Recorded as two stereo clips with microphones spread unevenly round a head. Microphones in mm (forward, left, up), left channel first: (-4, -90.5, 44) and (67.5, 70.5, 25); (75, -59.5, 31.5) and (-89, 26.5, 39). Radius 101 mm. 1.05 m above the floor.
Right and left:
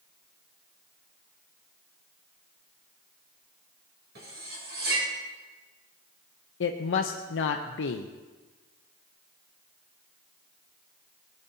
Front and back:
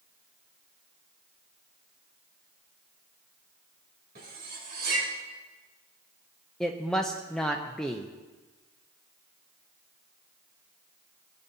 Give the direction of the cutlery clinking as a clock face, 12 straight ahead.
8 o'clock.